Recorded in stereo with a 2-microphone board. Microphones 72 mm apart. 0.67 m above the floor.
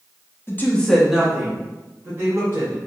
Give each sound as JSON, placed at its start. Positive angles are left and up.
{"t": 0.5, "sound": "a woman speaking", "side_deg": 30, "distance_m": 0.6}